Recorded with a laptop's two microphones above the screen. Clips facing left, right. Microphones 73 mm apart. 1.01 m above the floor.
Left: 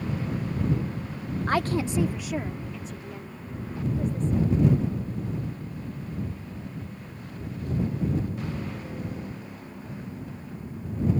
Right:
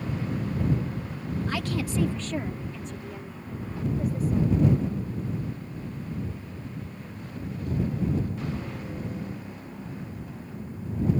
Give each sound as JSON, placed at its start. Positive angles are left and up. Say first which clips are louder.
{"t": 1.5, "sound": "a woman speaking", "louder": "left 7 dB", "side_deg": 50}